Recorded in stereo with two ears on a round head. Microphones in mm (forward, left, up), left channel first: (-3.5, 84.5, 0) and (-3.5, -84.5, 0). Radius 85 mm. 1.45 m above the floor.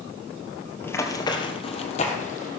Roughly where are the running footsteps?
Centre.